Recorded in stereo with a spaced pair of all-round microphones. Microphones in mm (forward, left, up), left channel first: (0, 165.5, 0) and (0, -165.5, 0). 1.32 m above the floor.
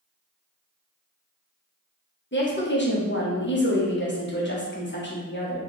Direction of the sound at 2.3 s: 30° left (ahead or behind).